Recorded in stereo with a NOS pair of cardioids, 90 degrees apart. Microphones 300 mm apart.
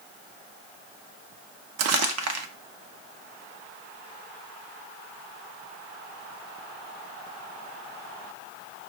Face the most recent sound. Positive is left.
turn(degrees=-65)